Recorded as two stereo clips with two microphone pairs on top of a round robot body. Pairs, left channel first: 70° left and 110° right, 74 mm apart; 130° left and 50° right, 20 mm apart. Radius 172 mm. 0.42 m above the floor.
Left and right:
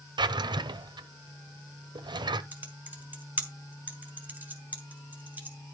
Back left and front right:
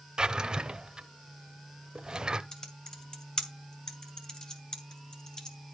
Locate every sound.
0.2 s a drawer: 100° right, 0.8 m
2.5 s typing on a keyboard: 175° right, 2.5 m